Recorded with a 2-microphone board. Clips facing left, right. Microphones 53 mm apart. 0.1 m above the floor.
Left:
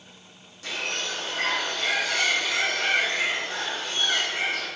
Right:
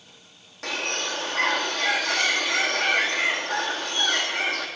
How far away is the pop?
No pop in this recording.